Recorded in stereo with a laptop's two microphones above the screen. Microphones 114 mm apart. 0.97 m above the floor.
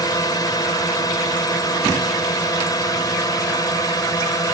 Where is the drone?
30° left (ahead or behind).